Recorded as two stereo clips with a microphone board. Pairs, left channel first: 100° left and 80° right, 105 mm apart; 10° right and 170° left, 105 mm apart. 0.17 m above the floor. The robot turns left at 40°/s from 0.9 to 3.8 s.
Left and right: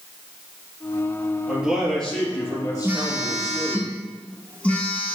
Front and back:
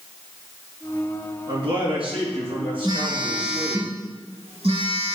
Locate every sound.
1.5 s a man speaking: 155° right, 3 m; by 3.8 s 110° left, 3 m
2.8 s a phone buzzing: 145° right, 1.5 m; by 5.2 s 175° left, 1.5 m